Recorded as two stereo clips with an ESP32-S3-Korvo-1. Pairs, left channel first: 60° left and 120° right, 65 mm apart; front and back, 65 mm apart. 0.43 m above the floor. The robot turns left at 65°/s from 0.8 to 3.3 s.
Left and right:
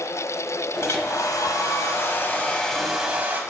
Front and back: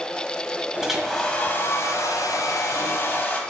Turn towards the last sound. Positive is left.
turn(degrees=-60)